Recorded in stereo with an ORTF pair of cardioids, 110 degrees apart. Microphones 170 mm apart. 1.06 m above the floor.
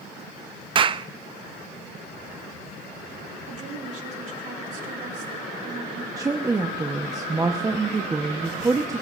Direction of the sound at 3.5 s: 45° right.